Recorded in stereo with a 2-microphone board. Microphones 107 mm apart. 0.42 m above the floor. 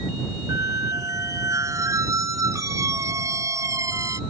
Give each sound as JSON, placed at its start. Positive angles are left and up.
{"t": 0.5, "sound": "a squeak", "side_deg": -30}